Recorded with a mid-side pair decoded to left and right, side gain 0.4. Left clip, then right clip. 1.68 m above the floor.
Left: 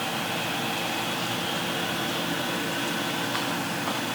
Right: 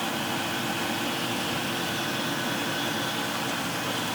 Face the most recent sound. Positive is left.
No sound to turn to.